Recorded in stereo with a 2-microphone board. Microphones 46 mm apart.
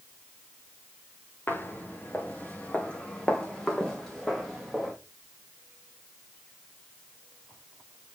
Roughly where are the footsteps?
Left.